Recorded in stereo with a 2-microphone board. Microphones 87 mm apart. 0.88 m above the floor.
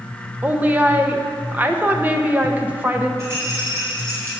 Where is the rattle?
30° right (ahead or behind), 3.5 m.